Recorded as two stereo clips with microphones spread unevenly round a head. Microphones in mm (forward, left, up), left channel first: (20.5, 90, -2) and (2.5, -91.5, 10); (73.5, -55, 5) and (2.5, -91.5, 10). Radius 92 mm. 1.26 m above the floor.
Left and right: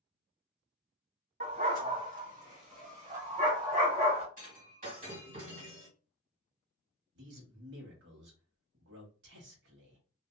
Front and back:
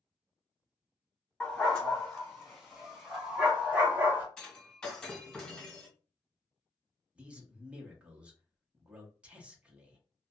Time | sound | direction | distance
1.4 | a dog barking | 55° right | 2.0 m
4.4 | breaking glass | 55° right | 1.9 m
7.2 | a man speaking | 75° right | 1.2 m